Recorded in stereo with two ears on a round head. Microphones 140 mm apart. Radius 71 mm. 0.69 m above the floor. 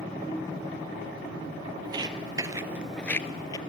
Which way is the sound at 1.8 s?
30° right (ahead or behind).